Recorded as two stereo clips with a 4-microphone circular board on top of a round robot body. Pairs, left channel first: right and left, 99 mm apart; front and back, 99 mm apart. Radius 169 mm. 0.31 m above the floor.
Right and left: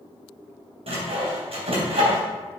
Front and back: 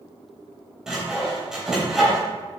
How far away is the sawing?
About 3.5 m.